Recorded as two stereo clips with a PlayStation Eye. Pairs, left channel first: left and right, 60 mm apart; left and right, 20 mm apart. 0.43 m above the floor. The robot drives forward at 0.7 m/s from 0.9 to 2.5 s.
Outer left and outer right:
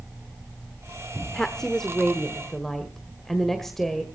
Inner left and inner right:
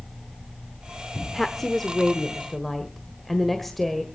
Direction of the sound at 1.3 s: 10° left (ahead or behind).